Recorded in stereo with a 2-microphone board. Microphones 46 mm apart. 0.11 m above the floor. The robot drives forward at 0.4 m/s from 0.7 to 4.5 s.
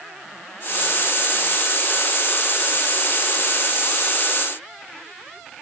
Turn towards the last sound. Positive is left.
No sound to turn to.